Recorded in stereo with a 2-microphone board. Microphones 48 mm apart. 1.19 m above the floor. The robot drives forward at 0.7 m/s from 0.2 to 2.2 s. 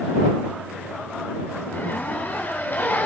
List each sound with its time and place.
1.7 s a zipper: 50° left (ahead or behind), 3.5 m; by 3.1 s 45° left (ahead or behind), 4 m